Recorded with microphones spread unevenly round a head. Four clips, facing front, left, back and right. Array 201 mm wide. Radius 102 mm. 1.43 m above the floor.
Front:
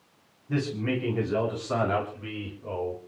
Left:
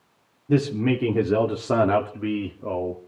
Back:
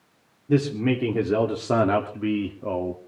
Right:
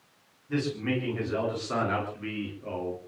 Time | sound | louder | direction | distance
0.5 | a man speaking | left 8 dB, back 7 dB | 125° left | 4 m